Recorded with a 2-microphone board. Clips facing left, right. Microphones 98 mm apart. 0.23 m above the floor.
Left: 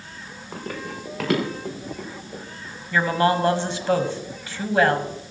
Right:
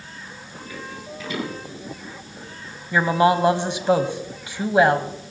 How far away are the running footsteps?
About 6 m.